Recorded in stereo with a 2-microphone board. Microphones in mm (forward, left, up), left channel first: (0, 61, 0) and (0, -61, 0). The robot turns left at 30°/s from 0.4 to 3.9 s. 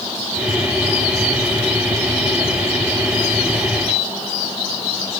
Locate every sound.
Only background noise.